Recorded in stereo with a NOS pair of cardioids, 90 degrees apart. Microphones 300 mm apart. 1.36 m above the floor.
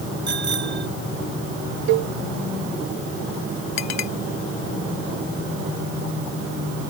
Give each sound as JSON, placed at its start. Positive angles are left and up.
{"t": 0.3, "sound": "a bicycle bell", "azimuth_deg": -35}
{"t": 1.9, "sound": "a cowbell", "azimuth_deg": -65}
{"t": 3.8, "sound": "a clink", "azimuth_deg": 65}